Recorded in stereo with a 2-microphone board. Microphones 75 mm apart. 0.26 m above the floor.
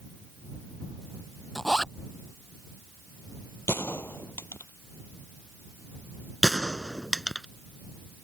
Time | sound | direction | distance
1.6 | a zipper | 5° left (ahead or behind) | ?
3.7 | a gunshot | 30° left (ahead or behind) | ?
6.4 | a gunshot | centre (ahead or behind) | ?